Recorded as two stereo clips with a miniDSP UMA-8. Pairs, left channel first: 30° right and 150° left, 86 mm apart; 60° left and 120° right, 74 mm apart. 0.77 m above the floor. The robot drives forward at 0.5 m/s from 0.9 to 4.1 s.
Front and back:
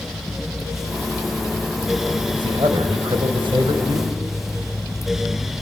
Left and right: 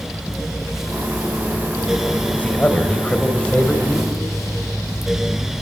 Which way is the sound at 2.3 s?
125° left.